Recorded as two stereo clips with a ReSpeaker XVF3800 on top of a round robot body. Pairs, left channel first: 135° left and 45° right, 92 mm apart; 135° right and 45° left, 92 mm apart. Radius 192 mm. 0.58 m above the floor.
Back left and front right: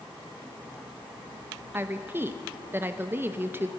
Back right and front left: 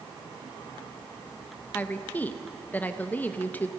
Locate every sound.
1.7 s a woman speaking: 85° right, 1.2 m